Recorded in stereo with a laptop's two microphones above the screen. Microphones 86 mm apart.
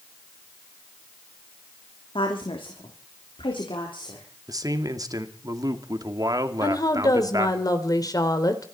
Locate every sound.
2.1 s a woman speaking: 70° left (ahead or behind), 3 m; by 4.3 s 65° left (ahead or behind), 4 m
4.5 s a man speaking: 45° right (ahead or behind), 2.5 m
6.6 s a woman speaking: 45° left (ahead or behind), 3 m